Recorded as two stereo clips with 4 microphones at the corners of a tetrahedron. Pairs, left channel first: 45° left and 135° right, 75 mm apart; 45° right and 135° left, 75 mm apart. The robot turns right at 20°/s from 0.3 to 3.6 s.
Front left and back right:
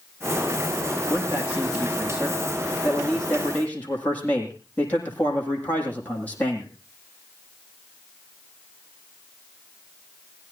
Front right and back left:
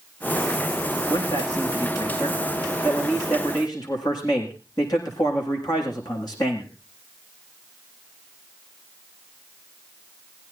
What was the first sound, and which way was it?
A man speaking, 75° right.